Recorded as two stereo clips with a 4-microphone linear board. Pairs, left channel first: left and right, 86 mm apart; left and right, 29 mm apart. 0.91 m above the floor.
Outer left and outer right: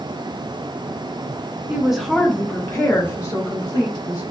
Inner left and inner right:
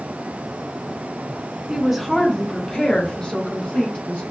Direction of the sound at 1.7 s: 15° right (ahead or behind).